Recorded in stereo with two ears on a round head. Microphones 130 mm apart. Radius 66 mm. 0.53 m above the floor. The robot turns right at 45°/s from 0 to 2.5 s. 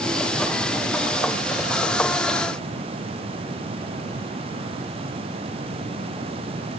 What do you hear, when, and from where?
Only background noise.